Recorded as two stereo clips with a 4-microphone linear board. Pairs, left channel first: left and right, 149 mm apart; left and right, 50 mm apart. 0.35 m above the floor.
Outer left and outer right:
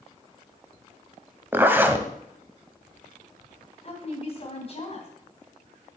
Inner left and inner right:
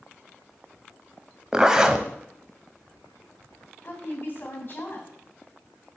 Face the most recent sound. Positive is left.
turn(degrees=45)  # may be behind; listen again after turning